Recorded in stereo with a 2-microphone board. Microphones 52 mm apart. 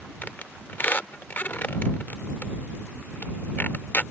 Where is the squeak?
35° left (ahead or behind).